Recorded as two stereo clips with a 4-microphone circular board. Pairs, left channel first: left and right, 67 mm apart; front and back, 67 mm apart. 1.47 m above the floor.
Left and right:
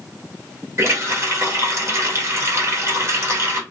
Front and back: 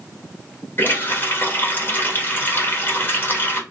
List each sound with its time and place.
0.8 s a running tap: 50° right, 1.1 m